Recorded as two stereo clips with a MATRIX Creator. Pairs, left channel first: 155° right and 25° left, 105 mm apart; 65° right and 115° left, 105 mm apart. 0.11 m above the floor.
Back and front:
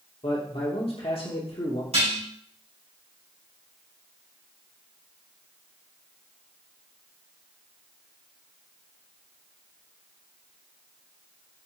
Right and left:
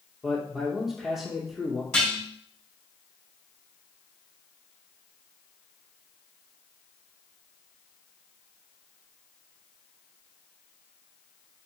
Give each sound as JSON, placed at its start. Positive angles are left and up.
{"t": 0.2, "sound": "a man speaking", "azimuth_deg": -160, "distance_m": 2.5}
{"t": 1.9, "sound": "dishes clattering", "azimuth_deg": 15, "distance_m": 4.0}